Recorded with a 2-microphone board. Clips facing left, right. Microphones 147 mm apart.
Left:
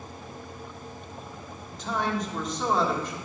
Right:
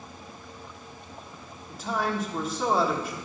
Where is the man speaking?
5° right (ahead or behind), 1.4 m.